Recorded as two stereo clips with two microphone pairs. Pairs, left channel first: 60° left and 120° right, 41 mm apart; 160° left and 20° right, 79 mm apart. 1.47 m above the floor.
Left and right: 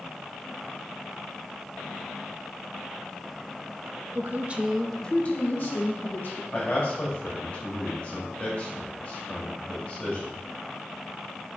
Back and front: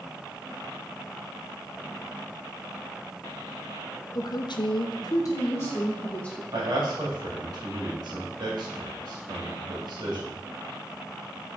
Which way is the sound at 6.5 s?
Straight ahead.